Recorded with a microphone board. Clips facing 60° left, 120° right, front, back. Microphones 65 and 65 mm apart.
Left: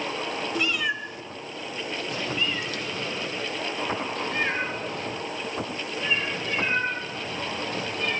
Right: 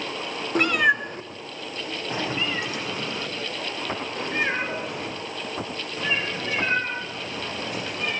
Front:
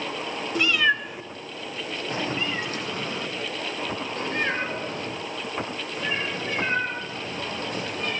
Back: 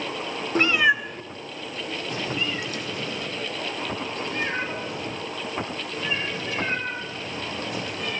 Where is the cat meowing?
145° right, 0.7 m; by 8.1 s 45° right, 9 m.